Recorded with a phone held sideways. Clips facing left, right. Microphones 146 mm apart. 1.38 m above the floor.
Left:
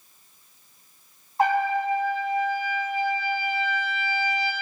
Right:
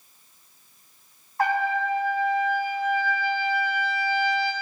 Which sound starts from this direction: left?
A trumpet, at 1.4 s.